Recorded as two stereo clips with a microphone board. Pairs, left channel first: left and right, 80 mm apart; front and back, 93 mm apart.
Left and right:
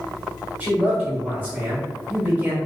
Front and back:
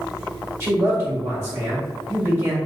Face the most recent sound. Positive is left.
turn(degrees=-145)